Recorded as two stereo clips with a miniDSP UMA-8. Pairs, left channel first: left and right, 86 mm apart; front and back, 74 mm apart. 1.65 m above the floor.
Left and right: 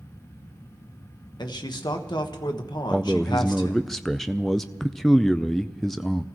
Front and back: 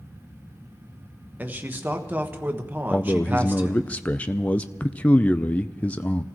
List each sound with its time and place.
1.4 s a man speaking: 115° left, 1.3 m
2.9 s a man speaking: 10° left, 0.5 m